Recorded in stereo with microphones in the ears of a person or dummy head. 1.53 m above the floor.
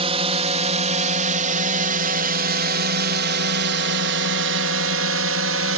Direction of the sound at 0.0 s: 30° right (ahead or behind).